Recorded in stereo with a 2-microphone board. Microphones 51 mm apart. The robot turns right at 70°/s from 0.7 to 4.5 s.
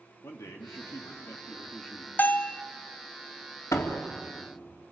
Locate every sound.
0.2 s a man speaking: 95° left, 2.5 m; by 2.1 s 170° right, 2.5 m
2.2 s a bell: 135° left, 0.6 m; by 2.6 s 165° left, 0.6 m
3.7 s a door slam: 80° left, 2.5 m; by 4.1 s 60° left (ahead or behind), 2.5 m